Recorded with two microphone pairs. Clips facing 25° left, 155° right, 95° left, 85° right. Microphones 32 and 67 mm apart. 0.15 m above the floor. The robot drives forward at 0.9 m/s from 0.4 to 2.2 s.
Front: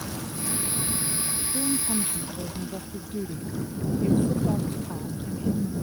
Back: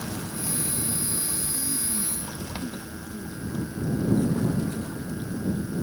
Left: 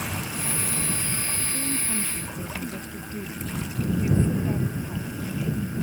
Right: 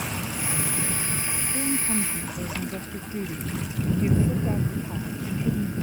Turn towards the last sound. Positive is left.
turn(degrees=-10)